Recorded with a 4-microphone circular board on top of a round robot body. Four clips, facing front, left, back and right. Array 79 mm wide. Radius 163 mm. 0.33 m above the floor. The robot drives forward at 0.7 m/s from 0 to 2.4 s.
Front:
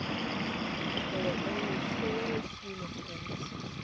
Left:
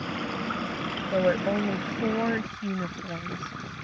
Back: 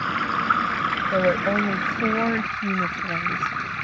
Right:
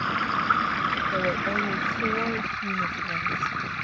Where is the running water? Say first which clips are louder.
Right 6 dB, back 11 dB; 145° right; by 3.8 s 155° right.